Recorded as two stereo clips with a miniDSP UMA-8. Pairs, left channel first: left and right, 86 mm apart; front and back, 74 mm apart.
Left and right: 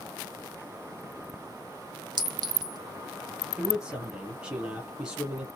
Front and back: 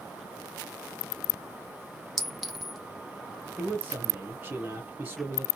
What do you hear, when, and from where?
2.2 s a clink: 90° right, 1.0 m
3.6 s a man speaking: 160° right, 1.2 m